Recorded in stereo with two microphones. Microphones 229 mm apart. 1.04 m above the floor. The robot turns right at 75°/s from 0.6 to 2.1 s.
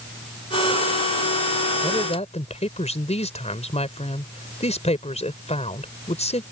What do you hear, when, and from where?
1.8 s a woman speaking: 10° left (ahead or behind); by 6.4 s 30° left (ahead or behind)